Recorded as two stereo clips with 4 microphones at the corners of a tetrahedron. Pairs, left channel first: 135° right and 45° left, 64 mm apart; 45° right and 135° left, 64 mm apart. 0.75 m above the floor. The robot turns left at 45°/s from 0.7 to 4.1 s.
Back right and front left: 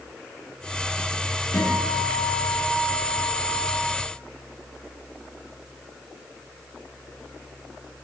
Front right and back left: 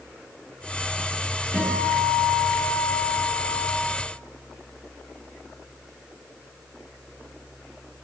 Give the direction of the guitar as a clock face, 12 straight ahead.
6 o'clock.